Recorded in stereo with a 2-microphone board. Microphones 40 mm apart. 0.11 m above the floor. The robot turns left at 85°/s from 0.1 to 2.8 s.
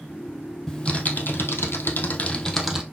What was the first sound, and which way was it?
Typing on a keyboard, 170° left.